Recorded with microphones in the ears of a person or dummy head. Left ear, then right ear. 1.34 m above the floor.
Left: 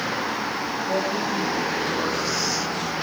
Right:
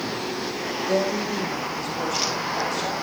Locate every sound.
0.9 s a woman speaking: 65° right (ahead or behind), 1.6 m; by 2.9 s 55° right (ahead or behind), 3 m